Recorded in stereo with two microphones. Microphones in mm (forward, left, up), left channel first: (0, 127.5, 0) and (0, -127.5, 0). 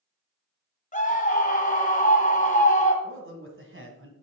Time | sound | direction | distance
0.9 | a scream | 30° left (ahead or behind) | 1.8 m
3.0 | a man speaking | 50° right (ahead or behind) | 1.8 m